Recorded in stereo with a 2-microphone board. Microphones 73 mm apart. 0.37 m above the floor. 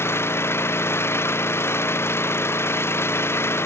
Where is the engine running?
35° left (ahead or behind).